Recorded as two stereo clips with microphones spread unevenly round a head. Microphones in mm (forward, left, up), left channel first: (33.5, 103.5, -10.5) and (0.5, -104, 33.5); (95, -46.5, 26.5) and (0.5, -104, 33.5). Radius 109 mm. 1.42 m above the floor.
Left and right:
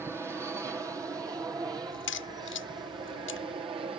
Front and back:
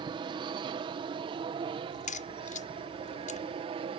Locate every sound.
0.0 s an aircraft: 175° left; by 4.0 s 170° right
1.9 s a crack: 45° left